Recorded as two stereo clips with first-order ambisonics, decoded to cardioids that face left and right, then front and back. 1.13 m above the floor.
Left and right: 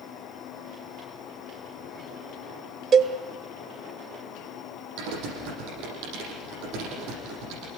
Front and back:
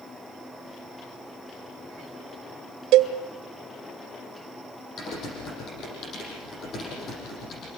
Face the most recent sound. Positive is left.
turn(degrees=-60)